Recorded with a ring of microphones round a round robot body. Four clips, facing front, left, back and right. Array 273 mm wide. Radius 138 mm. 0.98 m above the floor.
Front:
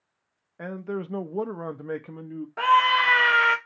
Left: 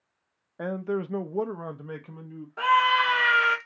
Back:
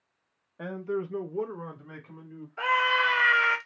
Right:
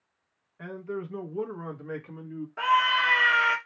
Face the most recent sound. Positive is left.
turn(degrees=5)